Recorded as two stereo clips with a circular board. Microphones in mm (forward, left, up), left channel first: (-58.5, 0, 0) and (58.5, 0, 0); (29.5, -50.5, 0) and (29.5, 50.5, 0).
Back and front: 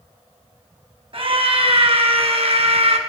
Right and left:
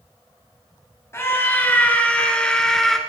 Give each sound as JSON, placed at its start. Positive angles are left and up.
{"t": 1.1, "sound": "a scream", "azimuth_deg": -35, "distance_m": 2.5}